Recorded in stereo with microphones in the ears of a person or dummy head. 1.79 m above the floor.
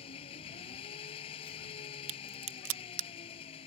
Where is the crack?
75° right (ahead or behind).